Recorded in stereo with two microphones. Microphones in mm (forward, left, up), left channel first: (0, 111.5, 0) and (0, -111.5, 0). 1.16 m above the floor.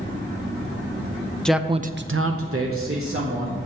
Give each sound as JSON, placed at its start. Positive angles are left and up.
{"t": 1.4, "sound": "a man speaking", "side_deg": 5, "distance_m": 0.7}